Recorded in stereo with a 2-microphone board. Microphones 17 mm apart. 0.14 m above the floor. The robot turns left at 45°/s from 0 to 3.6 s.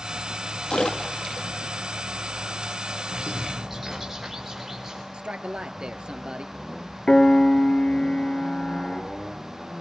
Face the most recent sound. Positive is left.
turn(degrees=55)  # may be behind; listen again after turning